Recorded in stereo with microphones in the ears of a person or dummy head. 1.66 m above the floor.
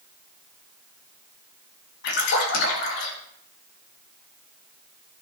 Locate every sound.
2.0 s a splash: 70° left (ahead or behind), 2.5 m